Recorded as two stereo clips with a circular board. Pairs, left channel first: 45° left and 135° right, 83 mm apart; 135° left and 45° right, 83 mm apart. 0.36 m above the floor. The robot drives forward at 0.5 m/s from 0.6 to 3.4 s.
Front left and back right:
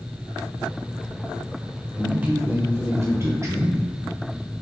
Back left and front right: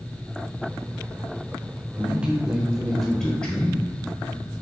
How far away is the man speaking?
About 0.9 m.